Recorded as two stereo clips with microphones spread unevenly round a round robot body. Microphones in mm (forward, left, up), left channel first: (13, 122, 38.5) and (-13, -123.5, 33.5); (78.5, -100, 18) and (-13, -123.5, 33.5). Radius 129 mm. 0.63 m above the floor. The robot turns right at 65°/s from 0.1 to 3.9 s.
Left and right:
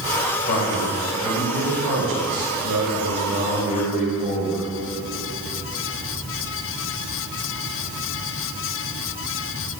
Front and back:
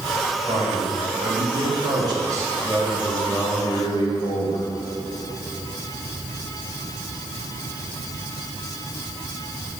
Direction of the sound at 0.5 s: 130° left.